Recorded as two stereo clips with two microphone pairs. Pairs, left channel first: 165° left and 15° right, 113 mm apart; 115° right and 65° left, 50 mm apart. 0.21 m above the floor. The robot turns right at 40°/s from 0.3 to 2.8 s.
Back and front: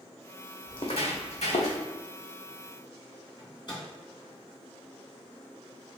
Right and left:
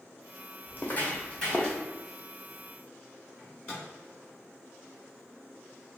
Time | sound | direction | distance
0.7 | footsteps | 155° right | 0.8 m
3.4 | a microwave | 165° right | 1.9 m